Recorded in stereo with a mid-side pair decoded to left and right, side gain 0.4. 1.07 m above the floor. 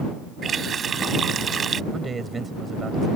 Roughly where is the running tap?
Ahead right.